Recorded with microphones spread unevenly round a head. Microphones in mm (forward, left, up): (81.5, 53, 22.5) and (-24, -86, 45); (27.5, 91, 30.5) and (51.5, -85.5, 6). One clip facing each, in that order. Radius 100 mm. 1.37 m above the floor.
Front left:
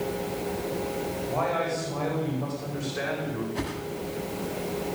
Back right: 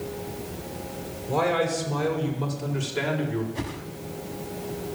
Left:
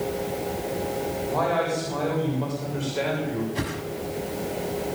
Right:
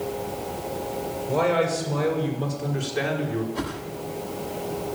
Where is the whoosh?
155° left, 1.7 m.